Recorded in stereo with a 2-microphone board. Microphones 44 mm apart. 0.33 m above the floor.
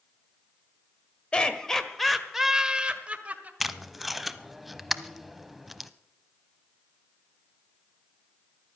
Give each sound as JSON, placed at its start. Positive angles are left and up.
{"t": 1.3, "sound": "laughter", "side_deg": 25, "distance_m": 1.7}
{"t": 3.6, "sound": "tape being pulled", "side_deg": -5, "distance_m": 0.6}